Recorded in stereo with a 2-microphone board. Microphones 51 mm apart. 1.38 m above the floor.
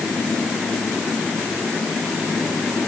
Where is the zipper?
No zipper in this recording.